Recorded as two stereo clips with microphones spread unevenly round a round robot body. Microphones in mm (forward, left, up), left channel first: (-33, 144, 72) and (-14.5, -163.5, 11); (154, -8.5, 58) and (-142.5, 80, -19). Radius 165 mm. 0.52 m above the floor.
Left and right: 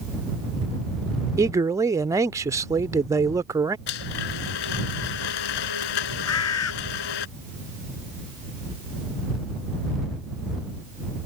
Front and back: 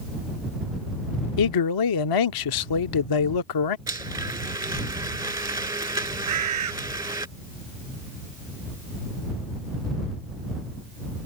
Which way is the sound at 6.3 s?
135° left.